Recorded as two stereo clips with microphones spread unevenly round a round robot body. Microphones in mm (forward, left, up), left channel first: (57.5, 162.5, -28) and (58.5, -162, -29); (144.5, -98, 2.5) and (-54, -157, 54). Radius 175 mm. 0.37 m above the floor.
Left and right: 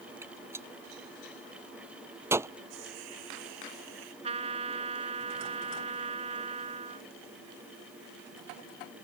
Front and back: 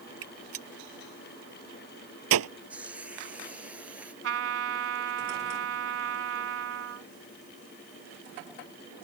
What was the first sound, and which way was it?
A gunshot, 175° right.